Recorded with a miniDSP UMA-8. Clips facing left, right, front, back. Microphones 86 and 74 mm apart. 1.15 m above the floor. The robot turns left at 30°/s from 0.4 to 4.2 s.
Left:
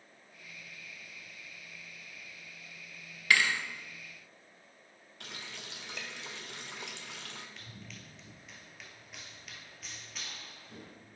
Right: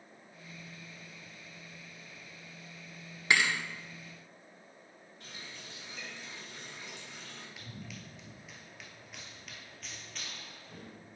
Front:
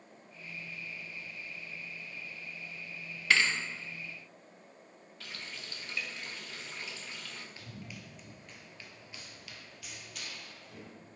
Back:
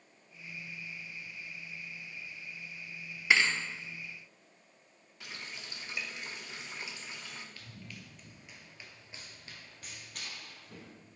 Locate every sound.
3.3 s a thud: 130° right, 0.7 m; by 3.6 s 135° right, 0.7 m
5.2 s a running tap: 110° left, 0.6 m
7.6 s running footsteps: 15° right, 1.1 m; by 10.9 s 175° left, 2.0 m